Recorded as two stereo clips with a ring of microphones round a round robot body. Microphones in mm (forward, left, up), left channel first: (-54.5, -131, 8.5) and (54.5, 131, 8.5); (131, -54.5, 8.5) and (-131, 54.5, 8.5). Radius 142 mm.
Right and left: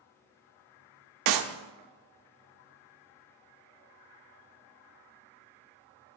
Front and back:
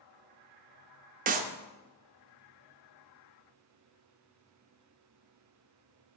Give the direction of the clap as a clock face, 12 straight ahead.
9 o'clock.